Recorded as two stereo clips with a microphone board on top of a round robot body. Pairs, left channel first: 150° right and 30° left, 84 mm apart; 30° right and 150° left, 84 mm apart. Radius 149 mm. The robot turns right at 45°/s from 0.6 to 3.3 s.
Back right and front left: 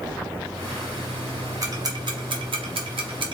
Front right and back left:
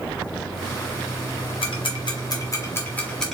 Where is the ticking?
20° right, 1.1 m; by 3.3 s 55° left, 1.1 m.